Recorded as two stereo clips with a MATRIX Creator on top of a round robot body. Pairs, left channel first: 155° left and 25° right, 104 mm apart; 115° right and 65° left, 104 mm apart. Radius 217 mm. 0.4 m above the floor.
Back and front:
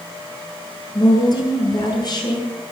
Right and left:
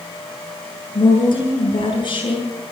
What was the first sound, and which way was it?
A woman speaking, 155° right.